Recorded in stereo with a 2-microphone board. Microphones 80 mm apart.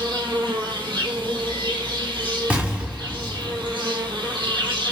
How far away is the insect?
About 0.8 m.